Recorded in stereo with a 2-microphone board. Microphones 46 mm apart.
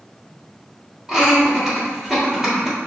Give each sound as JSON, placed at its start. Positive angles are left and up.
{"t": 1.1, "sound": "laughter", "side_deg": -15, "distance_m": 2.0}